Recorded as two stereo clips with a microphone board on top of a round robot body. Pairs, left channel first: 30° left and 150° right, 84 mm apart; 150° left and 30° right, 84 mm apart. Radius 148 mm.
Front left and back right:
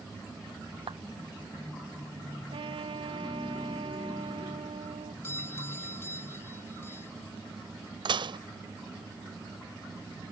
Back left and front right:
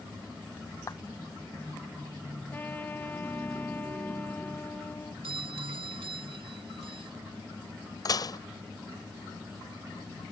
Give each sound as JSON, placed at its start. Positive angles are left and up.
{"t": 0.9, "sound": "a clap", "azimuth_deg": -160}
{"t": 2.5, "sound": "a trumpet", "azimuth_deg": -140}
{"t": 5.2, "sound": "a doorbell", "azimuth_deg": -35}
{"t": 8.1, "sound": "dishes clattering", "azimuth_deg": -170}